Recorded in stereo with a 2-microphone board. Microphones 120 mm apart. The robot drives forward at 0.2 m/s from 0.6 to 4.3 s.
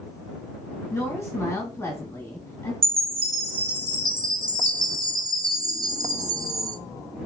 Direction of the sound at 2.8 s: 55° right (ahead or behind).